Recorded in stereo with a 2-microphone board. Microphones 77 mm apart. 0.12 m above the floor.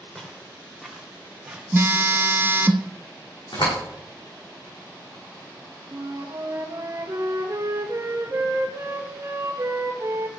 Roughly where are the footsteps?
Centre.